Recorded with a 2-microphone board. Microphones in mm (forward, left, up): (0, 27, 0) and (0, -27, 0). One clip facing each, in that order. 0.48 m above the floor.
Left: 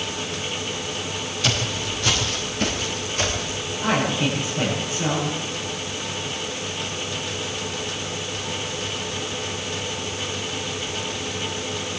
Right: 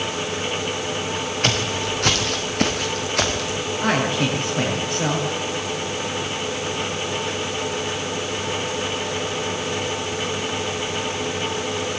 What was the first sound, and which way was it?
Footsteps, 50° right (ahead or behind).